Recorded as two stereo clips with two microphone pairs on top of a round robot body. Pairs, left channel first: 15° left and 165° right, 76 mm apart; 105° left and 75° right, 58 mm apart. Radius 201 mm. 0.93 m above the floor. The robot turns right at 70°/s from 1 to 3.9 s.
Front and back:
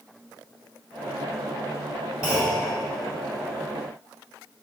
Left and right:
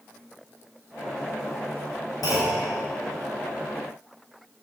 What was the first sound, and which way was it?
A clunk, 115° left.